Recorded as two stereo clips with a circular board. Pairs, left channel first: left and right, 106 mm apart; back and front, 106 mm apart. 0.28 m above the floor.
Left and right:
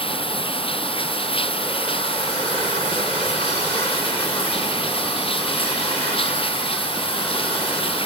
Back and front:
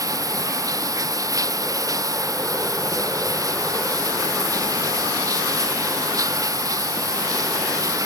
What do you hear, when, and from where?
0.0 s running water: 55° left